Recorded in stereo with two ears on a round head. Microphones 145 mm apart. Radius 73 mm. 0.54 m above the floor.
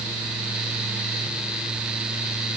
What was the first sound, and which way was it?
Only background noise.